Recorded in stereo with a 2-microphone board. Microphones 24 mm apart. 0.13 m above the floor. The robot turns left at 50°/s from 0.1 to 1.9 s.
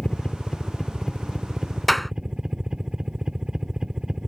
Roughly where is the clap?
Centre.